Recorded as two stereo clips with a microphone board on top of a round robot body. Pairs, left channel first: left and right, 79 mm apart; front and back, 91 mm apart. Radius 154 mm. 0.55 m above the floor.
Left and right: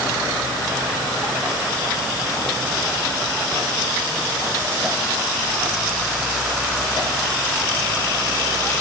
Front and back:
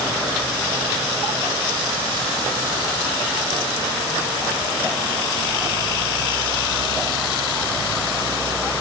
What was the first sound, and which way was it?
Only background noise.